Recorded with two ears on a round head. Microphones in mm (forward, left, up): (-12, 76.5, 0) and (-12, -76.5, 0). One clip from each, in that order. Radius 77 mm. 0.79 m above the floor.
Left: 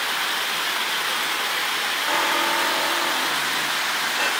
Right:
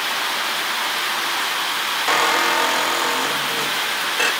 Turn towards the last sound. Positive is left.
turn(degrees=-45)  # may be behind; listen again after turning